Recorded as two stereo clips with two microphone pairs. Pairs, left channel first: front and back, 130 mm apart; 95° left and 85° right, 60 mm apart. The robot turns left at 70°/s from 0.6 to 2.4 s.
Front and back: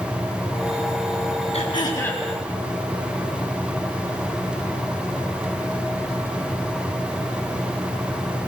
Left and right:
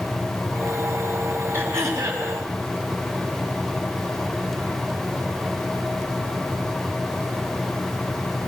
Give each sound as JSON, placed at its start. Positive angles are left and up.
{"t": 1.5, "sound": "throat clearing", "azimuth_deg": -35, "distance_m": 4.5}